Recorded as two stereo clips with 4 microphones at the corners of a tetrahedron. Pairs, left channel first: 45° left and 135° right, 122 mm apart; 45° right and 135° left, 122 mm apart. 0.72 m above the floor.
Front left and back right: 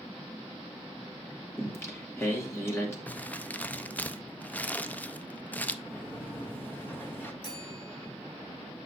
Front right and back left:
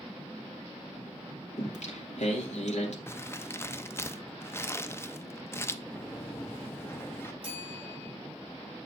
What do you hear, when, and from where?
1.6 s singing: 25° right, 2 m
3.1 s crumpling: 15° right, 0.5 m
5.8 s a sliding door: 5° right, 1.2 m
7.4 s a bell: 95° left, 3.5 m